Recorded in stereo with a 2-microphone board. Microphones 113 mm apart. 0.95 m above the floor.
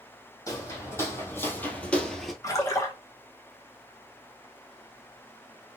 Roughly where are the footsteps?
Left.